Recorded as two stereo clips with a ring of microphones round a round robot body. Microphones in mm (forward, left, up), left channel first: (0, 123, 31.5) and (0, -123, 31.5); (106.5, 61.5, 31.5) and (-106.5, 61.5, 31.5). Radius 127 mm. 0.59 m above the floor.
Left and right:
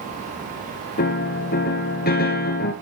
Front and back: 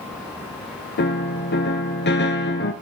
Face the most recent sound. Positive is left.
turn(degrees=35)